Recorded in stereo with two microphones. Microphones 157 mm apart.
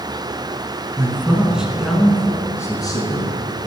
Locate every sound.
1.0 s a man speaking: 20° right (ahead or behind), 1.1 m; by 3.3 s 30° left (ahead or behind), 1.4 m